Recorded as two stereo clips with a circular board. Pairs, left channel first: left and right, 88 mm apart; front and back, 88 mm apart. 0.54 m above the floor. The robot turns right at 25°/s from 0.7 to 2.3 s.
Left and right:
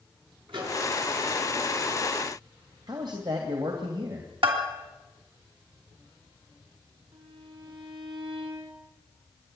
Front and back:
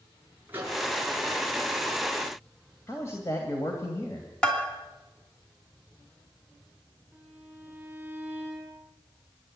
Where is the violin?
110° right, 6.5 m.